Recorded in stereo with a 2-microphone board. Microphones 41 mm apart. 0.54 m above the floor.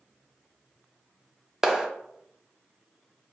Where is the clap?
15° right (ahead or behind), 0.5 m.